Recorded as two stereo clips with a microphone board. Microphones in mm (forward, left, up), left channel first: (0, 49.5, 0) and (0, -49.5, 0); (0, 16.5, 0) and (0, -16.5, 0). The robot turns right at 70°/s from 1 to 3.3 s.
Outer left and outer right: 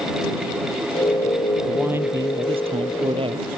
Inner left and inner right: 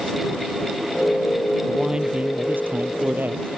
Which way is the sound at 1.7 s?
175° right.